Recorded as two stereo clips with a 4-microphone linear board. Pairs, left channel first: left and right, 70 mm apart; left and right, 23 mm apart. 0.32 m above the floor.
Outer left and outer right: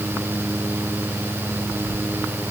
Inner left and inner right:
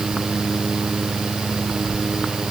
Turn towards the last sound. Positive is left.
No sound to turn to.